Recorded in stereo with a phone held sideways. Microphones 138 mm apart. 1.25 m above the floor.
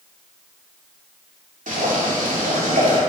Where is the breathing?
I don't hear breathing.